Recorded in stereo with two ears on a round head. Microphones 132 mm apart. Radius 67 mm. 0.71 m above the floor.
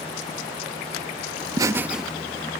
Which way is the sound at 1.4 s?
30° right (ahead or behind).